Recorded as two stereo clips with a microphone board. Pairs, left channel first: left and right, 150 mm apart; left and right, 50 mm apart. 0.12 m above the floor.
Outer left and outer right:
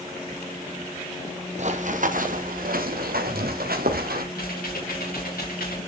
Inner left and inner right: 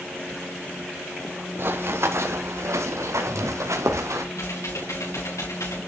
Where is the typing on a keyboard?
80° left, 5 m.